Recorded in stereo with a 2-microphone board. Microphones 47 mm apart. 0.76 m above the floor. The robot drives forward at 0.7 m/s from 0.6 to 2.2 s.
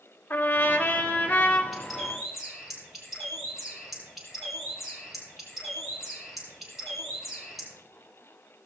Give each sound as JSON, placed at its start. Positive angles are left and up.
{"t": 0.3, "sound": "a trumpet", "side_deg": 45, "distance_m": 2.0}
{"t": 1.7, "sound": "a bird", "side_deg": 5, "distance_m": 6.0}